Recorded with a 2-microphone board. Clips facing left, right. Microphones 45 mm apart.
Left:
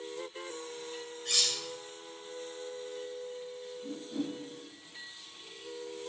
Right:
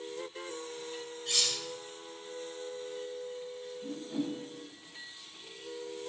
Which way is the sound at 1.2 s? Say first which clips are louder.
Even; 80° left.